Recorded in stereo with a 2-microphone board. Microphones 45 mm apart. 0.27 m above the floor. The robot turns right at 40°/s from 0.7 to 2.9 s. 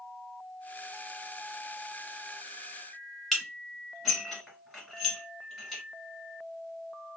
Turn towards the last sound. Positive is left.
turn(degrees=0)  # may be behind; listen again after turning